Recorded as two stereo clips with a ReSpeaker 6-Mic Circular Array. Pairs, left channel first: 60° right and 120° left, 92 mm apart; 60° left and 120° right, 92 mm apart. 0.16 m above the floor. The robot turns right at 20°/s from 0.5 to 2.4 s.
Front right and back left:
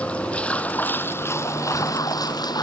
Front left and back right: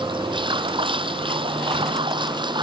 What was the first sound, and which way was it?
Running water, 135° right.